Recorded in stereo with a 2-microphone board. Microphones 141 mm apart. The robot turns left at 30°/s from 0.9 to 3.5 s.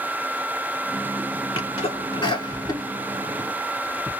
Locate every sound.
1.6 s a sneeze: 35° left (ahead or behind), 1.4 m; by 4.1 s 15° left (ahead or behind), 1.4 m